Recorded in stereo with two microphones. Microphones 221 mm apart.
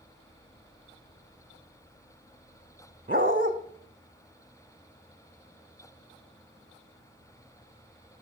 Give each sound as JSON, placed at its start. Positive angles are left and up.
{"t": 3.1, "sound": "a dog barking", "side_deg": -40, "distance_m": 2.5}